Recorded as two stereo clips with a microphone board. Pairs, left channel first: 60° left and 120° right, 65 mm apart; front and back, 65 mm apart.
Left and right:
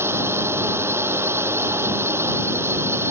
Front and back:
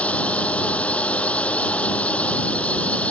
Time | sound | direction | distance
0.0 | a drone | 70° right | ?